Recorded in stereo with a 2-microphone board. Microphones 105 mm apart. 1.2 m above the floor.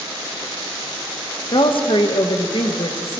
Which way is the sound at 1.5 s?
60° left (ahead or behind).